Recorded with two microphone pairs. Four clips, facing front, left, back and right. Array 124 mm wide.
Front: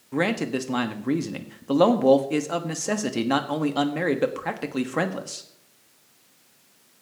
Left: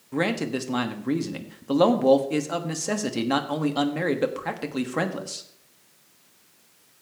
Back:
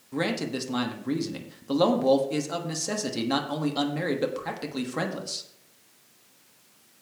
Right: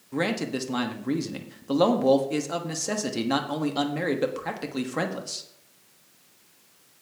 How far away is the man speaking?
About 1.2 m.